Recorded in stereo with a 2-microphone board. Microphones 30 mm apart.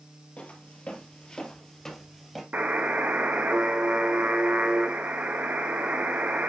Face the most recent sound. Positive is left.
turn(degrees=-75)  # may be behind; listen again after turning